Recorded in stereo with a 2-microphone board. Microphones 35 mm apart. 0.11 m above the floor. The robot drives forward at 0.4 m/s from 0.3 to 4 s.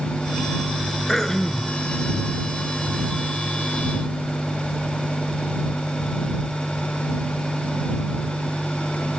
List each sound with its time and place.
1.1 s throat clearing: 15° left (ahead or behind), 1.5 m